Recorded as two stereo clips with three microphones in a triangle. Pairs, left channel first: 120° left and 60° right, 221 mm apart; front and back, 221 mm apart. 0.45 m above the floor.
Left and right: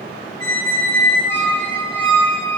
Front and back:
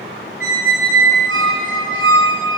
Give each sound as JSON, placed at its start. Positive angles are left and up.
{"t": 0.4, "sound": "a squeak", "azimuth_deg": -165, "distance_m": 1.8}